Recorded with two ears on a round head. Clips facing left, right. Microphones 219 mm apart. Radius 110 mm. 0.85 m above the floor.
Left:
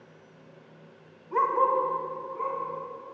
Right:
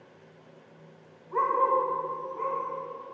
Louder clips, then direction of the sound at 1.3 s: Left 1 dB; 45° left (ahead or behind).